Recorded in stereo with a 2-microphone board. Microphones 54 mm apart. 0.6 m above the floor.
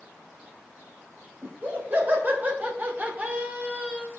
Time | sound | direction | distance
1.4 | laughter | 40° right (ahead or behind) | 3.5 m